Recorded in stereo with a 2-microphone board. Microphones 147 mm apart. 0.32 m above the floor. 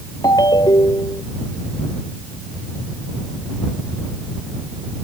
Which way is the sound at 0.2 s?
30° left (ahead or behind).